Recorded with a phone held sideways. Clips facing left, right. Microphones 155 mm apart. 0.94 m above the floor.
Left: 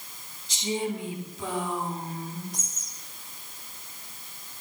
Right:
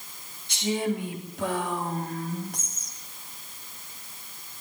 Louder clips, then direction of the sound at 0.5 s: Right 2 dB; 60° right (ahead or behind).